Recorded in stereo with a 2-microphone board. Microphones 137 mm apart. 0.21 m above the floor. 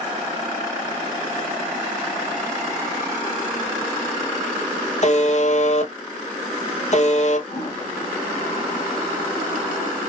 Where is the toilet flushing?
75° left (ahead or behind), 2.5 m.